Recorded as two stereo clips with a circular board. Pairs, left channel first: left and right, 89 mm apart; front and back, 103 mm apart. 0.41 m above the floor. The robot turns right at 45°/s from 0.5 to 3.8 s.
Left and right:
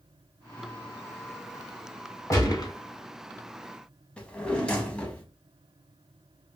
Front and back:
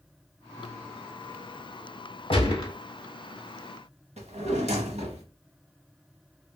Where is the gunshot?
35° left, 1.0 m; by 2.7 s 55° left, 1.0 m.